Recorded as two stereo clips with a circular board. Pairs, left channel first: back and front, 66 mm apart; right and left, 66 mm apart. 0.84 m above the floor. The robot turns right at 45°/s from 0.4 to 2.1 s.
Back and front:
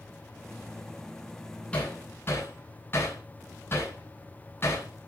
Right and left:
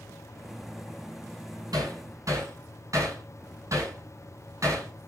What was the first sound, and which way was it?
Hammering, 110° left.